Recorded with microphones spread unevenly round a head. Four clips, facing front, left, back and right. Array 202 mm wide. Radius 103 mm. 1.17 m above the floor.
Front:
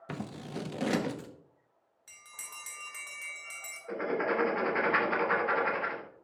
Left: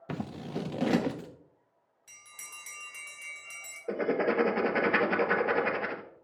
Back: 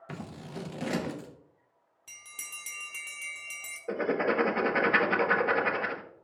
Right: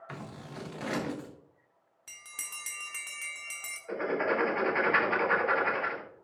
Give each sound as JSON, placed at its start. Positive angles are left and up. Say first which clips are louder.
{"t": 0.1, "sound": "scissors", "louder": "left 8 dB, front 2 dB", "azimuth_deg": 75, "distance_m": 0.7}
{"t": 2.1, "sound": "a bell", "louder": "right 3 dB, even", "azimuth_deg": -120, "distance_m": 1.4}
{"t": 3.9, "sound": "writing", "louder": "left 2 dB, back 3 dB", "azimuth_deg": 120, "distance_m": 1.0}